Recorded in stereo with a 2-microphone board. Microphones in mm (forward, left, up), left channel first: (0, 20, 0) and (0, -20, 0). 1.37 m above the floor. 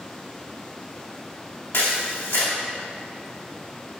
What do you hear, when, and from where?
1.7 s a camera shutter: 80° left, 2 m